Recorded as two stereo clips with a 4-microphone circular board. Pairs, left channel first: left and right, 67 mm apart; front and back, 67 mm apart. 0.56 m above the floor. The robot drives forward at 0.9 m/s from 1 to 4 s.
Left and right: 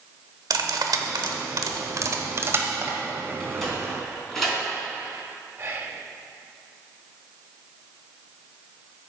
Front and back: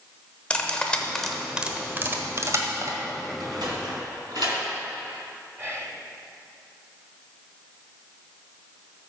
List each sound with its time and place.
0.5 s cutlery clinking: 75° right, 1.1 m; by 3.0 s 145° right, 1.8 m
3.4 s a sliding door: 175° left, 3 m
5.6 s whispering: 135° right, 1.9 m